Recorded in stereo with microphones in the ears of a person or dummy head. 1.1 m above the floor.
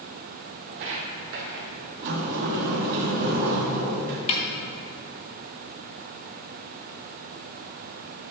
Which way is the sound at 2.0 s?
45° right (ahead or behind).